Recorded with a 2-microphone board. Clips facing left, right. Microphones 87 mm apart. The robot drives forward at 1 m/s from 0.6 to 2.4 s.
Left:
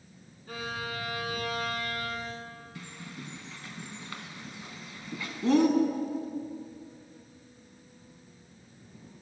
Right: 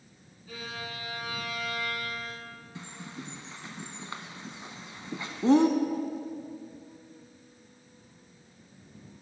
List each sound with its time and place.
0.5 s a violin: 55° left (ahead or behind), 1.3 m; by 2.5 s 30° left (ahead or behind), 2.0 m
2.8 s a bird: 25° right (ahead or behind), 0.6 m